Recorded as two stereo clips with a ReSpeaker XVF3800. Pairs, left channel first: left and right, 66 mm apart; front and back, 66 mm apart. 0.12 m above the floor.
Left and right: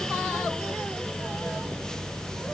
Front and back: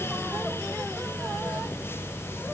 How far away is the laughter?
No laughter in this recording.